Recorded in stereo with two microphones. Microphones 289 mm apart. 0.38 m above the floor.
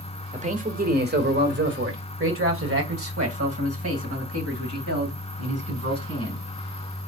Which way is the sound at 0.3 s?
25° right (ahead or behind).